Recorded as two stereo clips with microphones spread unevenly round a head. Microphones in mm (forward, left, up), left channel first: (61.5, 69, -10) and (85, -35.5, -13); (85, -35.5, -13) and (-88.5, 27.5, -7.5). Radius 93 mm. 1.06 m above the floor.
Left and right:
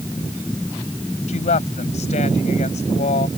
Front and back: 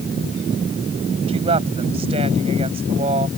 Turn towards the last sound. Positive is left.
turn(degrees=100)